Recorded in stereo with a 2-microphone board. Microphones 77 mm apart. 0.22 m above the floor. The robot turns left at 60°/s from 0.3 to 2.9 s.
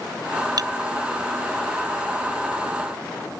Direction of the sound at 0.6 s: 60° right (ahead or behind).